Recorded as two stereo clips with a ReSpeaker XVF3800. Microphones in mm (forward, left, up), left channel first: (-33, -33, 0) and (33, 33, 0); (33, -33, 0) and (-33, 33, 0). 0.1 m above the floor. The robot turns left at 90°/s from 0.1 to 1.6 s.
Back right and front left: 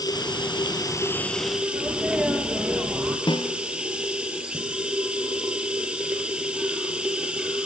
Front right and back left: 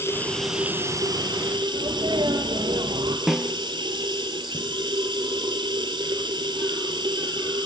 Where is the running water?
105° right, 2.5 m; by 7.7 s 120° left, 2.5 m.